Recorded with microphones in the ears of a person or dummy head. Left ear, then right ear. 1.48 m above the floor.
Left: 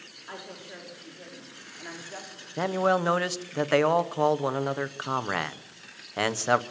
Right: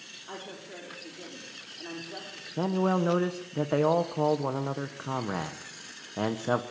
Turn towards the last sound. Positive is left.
turn(degrees=60)  # may be behind; listen again after turning